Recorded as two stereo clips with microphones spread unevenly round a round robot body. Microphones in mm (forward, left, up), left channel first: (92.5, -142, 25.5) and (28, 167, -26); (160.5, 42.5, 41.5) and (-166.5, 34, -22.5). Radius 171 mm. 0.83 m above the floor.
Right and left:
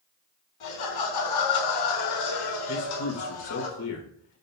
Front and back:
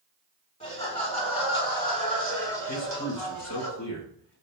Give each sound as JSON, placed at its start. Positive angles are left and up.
{"t": 0.6, "sound": "laughter", "azimuth_deg": -70, "distance_m": 6.5}
{"t": 2.7, "sound": "a man speaking", "azimuth_deg": -45, "distance_m": 4.0}